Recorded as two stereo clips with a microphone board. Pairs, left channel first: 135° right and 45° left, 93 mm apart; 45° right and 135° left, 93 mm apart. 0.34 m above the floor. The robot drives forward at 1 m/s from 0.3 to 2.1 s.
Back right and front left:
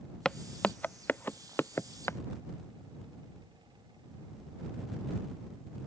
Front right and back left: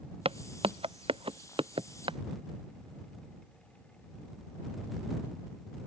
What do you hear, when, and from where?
0.2 s footsteps: 140° left; by 2.2 s 160° left